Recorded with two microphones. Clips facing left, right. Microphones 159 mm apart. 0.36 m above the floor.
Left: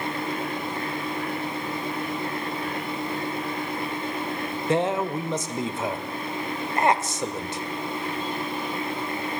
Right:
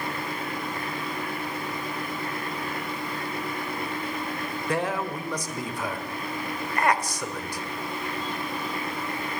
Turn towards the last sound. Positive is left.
turn(degrees=25)  # may be behind; listen again after turning